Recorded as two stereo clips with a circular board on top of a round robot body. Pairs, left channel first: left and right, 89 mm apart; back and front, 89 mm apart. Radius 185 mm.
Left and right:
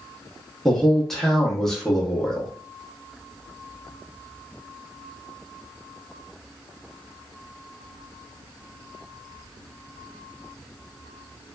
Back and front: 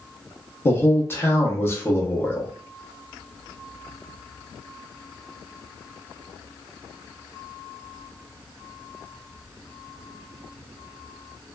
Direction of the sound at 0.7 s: 170° left.